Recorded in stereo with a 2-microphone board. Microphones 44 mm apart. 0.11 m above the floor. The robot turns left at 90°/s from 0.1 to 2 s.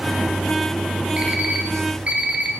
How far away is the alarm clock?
About 0.6 m.